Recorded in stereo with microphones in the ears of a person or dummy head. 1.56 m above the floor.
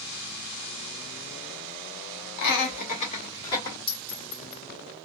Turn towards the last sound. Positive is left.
turn(degrees=30)  # may be behind; listen again after turning